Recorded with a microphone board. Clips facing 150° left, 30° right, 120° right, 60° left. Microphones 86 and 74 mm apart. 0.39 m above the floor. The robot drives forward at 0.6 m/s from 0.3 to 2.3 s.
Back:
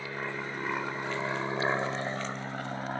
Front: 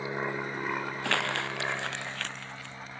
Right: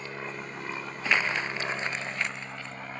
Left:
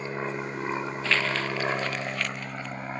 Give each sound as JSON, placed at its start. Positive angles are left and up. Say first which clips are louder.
{"t": 0.0, "sound": "an aircraft", "louder": "front 3 dB, left 6 dB", "azimuth_deg": 20}
{"t": 1.0, "sound": "crumpling", "louder": "front 3 dB, right 1 dB", "azimuth_deg": -45}